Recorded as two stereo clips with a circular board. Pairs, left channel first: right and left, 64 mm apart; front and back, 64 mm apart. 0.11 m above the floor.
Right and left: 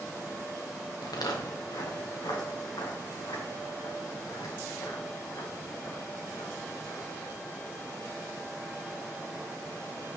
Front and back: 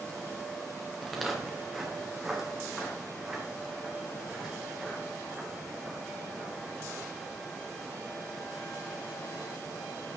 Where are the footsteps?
90° right, 3 m; by 7.0 s 105° right, 6.5 m.